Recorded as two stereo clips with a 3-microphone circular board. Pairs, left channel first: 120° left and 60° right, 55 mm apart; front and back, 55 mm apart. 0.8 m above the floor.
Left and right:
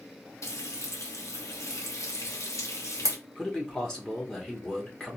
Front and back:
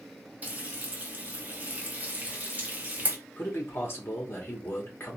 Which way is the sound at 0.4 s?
120° left.